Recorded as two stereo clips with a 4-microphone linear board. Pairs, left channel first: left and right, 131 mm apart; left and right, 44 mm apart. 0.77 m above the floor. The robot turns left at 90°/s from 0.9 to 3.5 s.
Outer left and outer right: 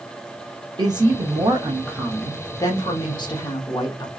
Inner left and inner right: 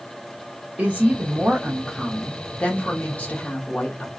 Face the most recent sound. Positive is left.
turn(degrees=60)